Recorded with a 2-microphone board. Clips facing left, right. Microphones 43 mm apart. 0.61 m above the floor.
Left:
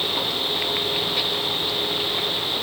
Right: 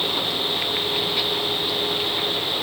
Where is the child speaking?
I don't hear a child speaking.